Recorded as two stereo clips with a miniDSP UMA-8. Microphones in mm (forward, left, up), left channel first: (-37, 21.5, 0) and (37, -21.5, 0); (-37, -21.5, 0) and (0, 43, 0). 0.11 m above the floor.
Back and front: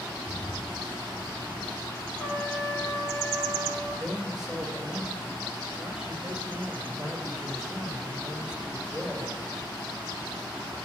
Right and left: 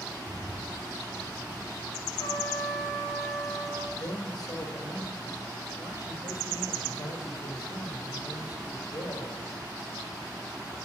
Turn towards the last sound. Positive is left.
turn(degrees=-115)